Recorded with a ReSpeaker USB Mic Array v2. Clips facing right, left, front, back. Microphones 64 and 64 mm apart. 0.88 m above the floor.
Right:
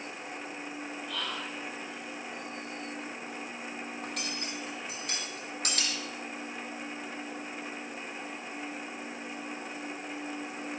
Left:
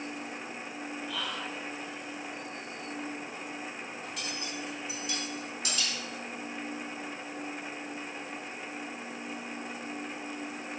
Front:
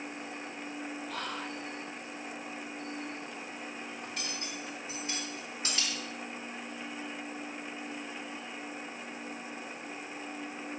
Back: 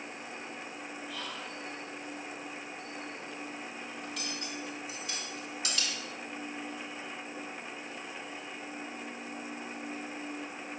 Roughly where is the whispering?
Ahead.